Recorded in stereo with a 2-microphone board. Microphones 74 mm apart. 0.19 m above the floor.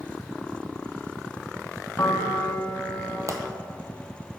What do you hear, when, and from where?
2.0 s a piano: 40° left (ahead or behind), 1.3 m
3.3 s a pop: 40° right (ahead or behind), 1.0 m